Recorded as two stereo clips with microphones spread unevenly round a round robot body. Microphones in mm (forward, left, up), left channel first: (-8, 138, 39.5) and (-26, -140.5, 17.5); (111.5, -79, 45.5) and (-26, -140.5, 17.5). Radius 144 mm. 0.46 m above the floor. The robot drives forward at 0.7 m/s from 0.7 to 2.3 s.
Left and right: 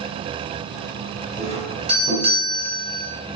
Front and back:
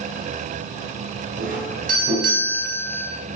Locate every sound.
1.4 s a doorbell: 160° right, 4.5 m; by 3.1 s 165° right, 5 m